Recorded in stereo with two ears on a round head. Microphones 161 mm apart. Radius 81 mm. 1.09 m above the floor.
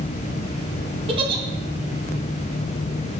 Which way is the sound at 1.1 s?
30° right (ahead or behind).